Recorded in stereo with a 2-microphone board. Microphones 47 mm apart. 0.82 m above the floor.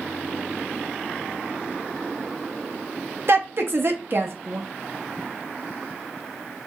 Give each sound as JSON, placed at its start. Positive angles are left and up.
{"t": 3.3, "sound": "a woman speaking", "side_deg": -50, "distance_m": 0.6}